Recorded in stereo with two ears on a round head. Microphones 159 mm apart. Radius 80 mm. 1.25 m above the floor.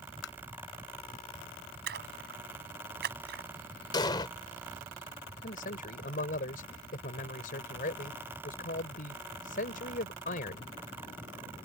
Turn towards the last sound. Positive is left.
turn(degrees=50)  # may be behind; listen again after turning